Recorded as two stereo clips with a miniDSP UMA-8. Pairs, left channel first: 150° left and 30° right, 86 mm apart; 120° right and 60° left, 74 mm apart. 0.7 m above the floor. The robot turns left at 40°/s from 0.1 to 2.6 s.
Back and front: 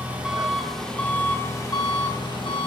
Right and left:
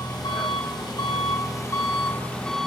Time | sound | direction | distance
0.0 | an engine running | 100° right | 1.2 m